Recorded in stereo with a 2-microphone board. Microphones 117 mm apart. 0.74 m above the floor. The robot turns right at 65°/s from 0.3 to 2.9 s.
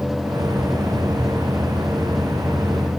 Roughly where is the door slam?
No door slam in this recording.